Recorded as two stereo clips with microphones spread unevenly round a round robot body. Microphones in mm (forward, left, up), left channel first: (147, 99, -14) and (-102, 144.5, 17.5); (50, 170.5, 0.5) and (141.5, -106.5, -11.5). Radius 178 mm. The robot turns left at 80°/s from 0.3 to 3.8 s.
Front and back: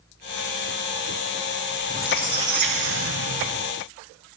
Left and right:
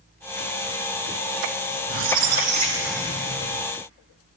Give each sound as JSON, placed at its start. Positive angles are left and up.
{"t": 1.9, "sound": "a squeak", "azimuth_deg": -80, "distance_m": 0.5}